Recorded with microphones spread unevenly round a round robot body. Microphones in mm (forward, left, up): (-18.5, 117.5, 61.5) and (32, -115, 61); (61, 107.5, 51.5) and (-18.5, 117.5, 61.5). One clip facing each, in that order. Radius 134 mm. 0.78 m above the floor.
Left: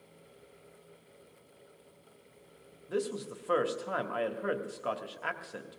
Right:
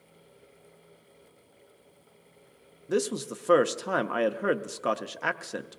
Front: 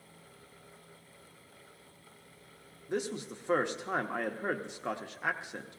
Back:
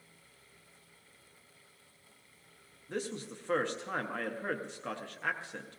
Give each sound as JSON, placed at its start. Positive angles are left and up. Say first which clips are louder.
{"t": 2.9, "sound": "a man speaking", "louder": "right 6 dB, front 3 dB", "azimuth_deg": -80, "distance_m": 0.8}